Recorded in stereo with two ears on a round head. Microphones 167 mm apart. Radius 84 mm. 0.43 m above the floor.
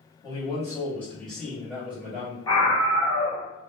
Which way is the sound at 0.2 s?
25° left (ahead or behind).